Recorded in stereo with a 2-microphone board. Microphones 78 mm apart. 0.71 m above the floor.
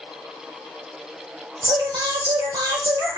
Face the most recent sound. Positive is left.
turn(degrees=-70)  # may be behind; listen again after turning